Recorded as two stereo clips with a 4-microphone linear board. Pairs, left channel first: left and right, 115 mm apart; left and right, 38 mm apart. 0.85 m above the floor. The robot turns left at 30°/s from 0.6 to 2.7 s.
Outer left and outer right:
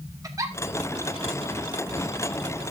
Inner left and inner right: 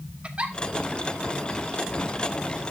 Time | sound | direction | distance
0.2 | a giggle | 30° right (ahead or behind) | 1.0 m